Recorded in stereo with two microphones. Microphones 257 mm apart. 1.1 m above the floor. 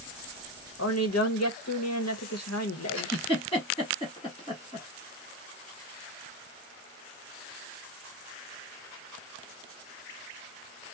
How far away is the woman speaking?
About 1.2 m.